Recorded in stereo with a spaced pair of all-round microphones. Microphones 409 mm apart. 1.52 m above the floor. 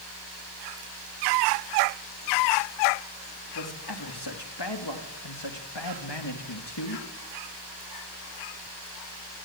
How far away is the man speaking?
About 4 m.